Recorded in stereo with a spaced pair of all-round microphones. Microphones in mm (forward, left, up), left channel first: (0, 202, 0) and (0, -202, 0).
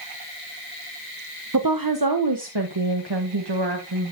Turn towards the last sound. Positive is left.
turn(degrees=-70)  # may be behind; listen again after turning